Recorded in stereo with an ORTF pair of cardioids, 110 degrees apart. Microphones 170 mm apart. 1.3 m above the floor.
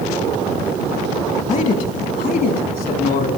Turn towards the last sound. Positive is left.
turn(degrees=65)